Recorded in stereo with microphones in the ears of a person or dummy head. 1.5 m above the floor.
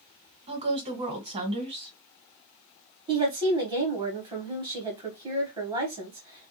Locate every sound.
0.5 s a woman speaking: 30° right (ahead or behind), 1.2 m
3.1 s a woman speaking: 20° right (ahead or behind), 1.0 m